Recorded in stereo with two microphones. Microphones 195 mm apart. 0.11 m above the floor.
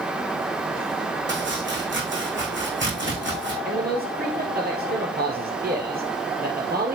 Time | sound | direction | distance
1.3 | chopping | 70° right (ahead or behind) | 4 m
3.6 | a man speaking | 50° right (ahead or behind) | 2 m